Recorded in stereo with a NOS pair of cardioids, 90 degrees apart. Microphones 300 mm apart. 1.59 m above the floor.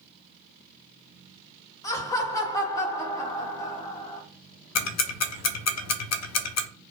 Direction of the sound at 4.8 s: 60° left.